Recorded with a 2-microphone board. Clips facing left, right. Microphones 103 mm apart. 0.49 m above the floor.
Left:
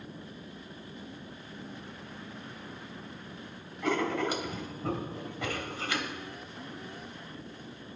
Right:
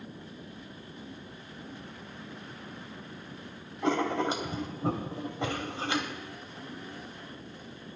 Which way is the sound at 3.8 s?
25° right (ahead or behind).